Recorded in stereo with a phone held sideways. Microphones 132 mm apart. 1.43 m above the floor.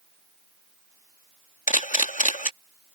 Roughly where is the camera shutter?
Left.